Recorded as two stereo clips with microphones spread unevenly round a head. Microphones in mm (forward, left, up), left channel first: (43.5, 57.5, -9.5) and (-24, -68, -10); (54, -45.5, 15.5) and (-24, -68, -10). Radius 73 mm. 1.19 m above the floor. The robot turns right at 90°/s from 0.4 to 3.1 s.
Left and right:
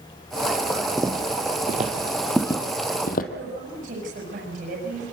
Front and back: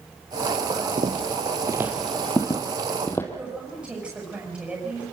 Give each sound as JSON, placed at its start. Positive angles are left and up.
{"t": 1.0, "sound": "footsteps", "azimuth_deg": 160, "distance_m": 2.0}
{"t": 3.3, "sound": "a woman speaking", "azimuth_deg": -90, "distance_m": 6.0}